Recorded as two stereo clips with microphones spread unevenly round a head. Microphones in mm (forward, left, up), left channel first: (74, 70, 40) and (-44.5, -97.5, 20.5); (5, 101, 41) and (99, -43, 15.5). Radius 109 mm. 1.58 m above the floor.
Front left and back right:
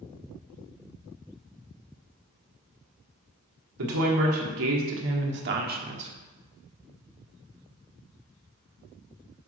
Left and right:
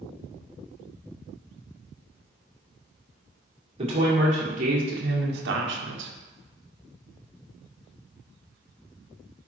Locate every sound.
3.8 s a woman speaking: 120° right, 2.5 m; by 6.1 s 65° right, 1.2 m